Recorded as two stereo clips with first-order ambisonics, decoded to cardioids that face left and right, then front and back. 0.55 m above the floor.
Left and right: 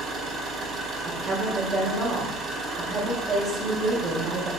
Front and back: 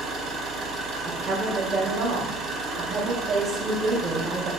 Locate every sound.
0.0 s an engine running: 130° right, 0.9 m
1.0 s a woman speaking: 120° right, 0.7 m